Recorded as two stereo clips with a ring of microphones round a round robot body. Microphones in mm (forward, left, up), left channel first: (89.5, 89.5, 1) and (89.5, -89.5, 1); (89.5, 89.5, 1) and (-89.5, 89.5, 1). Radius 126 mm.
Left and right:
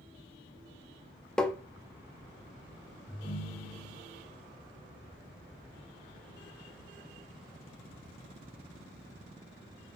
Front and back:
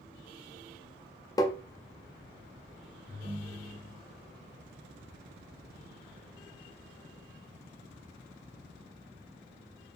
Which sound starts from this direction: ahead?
Tapping, at 1.4 s.